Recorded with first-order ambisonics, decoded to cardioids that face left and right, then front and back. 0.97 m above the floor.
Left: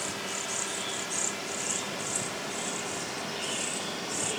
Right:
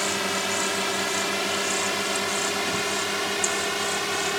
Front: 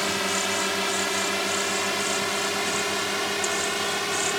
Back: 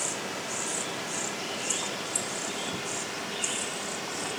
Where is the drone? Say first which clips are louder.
Right 9 dB, front 8 dB; 45° right; by 4.4 s 50° right.